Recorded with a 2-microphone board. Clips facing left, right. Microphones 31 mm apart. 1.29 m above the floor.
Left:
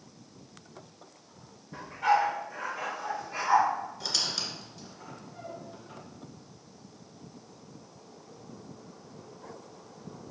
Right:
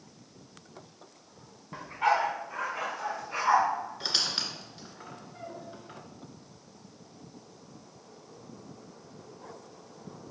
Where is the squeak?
35° right (ahead or behind), 1.6 m.